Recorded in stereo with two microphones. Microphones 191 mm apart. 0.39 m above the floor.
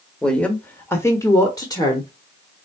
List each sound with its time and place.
0.2 s a woman speaking: 5° left (ahead or behind), 1.3 m; by 2.1 s 20° left (ahead or behind), 1.3 m